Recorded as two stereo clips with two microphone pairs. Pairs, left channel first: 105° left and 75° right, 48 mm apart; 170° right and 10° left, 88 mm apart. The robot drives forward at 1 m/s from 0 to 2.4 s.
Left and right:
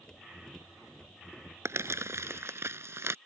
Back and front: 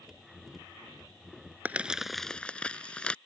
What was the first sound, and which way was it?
Crumpling, 60° right.